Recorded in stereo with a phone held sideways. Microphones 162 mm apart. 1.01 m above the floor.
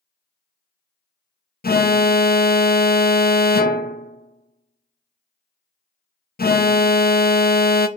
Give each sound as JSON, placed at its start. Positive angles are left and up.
{"t": 1.6, "sound": "an alarm", "side_deg": 70, "distance_m": 0.5}